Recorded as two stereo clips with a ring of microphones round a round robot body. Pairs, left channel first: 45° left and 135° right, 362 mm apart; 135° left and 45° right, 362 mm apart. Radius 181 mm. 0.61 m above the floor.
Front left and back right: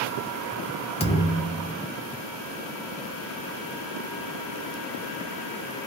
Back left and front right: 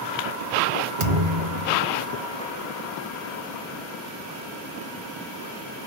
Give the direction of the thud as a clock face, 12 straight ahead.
1 o'clock.